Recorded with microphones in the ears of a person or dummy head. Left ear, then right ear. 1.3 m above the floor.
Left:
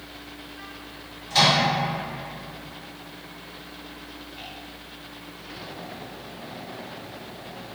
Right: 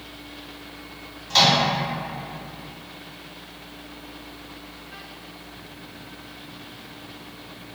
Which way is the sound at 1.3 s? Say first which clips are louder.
Right 2 dB; 65° right (ahead or behind).